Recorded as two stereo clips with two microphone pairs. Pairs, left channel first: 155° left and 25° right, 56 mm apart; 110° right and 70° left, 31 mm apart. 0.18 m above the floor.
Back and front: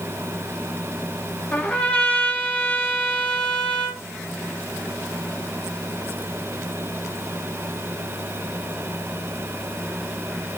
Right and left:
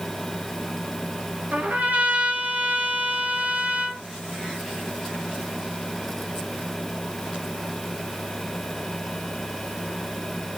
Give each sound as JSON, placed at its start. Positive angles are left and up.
{"t": 1.5, "sound": "a trumpet", "azimuth_deg": 85, "distance_m": 1.2}